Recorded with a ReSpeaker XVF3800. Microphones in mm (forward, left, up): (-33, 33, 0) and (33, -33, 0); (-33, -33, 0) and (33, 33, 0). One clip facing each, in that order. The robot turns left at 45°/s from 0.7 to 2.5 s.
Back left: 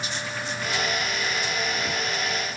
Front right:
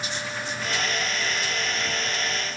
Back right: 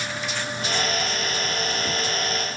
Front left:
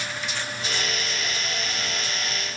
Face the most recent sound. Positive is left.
No sound to turn to.